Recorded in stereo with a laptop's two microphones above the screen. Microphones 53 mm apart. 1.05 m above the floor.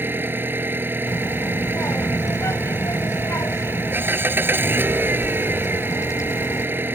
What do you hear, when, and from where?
0.0 s an engine running: 35° right (ahead or behind)
1.1 s a child speaking: 65° left (ahead or behind)